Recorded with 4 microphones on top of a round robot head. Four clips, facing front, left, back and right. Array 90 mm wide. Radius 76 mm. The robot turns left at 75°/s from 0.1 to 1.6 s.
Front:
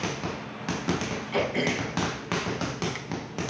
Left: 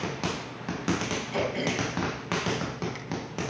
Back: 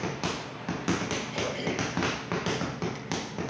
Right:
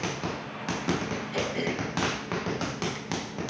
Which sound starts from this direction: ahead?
Throat clearing, at 1.3 s.